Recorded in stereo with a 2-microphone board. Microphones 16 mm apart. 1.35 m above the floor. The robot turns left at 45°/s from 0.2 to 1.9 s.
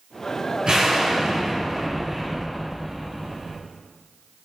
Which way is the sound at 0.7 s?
115° right.